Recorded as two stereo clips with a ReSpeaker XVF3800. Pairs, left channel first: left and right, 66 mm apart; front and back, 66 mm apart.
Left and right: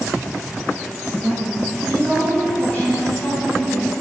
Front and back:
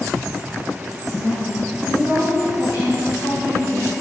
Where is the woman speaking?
25° left, 4 m; by 3.9 s 40° left, 6.5 m.